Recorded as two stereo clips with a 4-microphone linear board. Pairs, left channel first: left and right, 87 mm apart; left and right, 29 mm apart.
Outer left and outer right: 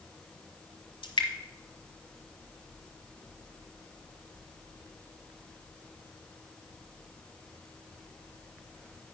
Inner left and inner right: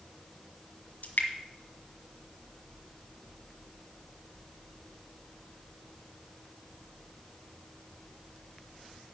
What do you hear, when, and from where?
1.0 s dripping: 75° left (ahead or behind), 1.6 m